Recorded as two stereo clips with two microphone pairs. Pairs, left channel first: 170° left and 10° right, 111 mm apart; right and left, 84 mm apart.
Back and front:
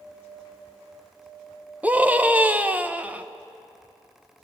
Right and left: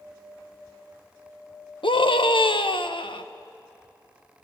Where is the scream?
85° right, 1.1 m.